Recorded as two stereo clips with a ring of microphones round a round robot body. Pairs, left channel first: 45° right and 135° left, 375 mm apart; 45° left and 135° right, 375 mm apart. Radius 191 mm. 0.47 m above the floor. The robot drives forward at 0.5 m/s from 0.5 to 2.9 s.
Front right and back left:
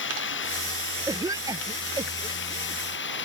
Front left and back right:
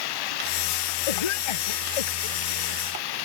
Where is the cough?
55° left.